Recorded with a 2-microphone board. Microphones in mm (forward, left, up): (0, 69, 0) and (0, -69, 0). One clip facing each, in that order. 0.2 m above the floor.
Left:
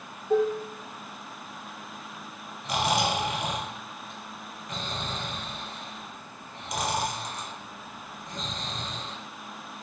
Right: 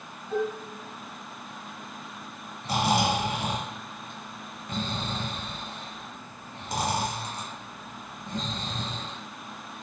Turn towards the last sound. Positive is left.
turn(degrees=-30)  # may be behind; listen again after turning